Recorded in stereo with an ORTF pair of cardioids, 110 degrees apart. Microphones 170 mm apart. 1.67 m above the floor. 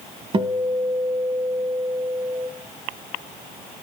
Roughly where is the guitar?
Ahead right.